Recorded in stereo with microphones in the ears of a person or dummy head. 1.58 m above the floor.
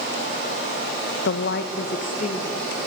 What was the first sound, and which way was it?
A woman speaking, 75° left (ahead or behind).